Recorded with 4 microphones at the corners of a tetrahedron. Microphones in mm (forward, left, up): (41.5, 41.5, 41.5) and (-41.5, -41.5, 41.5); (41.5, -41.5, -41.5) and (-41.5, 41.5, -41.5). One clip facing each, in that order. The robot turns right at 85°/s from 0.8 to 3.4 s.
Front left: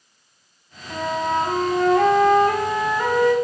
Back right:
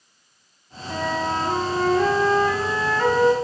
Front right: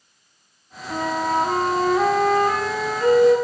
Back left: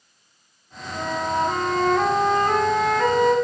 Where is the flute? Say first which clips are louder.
Front left 2 dB, front right 3 dB; 55° right, 1.3 m; by 3.3 s 155° left, 1.3 m.